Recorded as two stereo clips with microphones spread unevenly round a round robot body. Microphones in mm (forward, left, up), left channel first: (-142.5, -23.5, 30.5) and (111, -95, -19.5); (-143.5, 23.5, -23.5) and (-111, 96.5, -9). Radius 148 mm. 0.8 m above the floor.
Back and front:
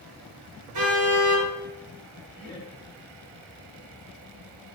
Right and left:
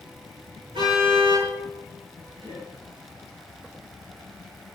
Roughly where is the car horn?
Ahead.